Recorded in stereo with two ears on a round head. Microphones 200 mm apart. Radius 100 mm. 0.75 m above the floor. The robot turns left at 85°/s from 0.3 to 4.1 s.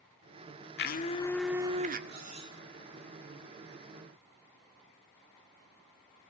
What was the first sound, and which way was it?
A blender, 55° left.